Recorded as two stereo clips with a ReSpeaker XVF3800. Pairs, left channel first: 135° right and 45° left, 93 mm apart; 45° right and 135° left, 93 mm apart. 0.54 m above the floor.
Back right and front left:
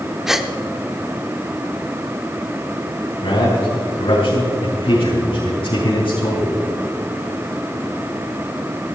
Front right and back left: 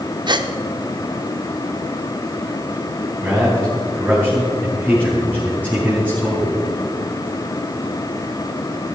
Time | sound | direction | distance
0.3 | a gasp | 130° left | 0.9 m
3.2 | a man speaking | 155° right | 4.5 m